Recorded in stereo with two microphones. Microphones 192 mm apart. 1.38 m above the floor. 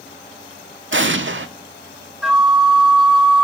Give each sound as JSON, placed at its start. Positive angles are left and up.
{"t": 0.9, "sound": "an explosion", "side_deg": -85, "distance_m": 0.6}
{"t": 2.2, "sound": "a flute", "side_deg": 0, "distance_m": 1.2}